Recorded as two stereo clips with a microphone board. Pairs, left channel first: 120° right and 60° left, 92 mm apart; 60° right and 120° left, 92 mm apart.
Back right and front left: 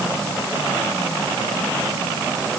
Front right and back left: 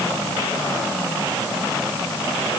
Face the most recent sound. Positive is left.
No sound to turn to.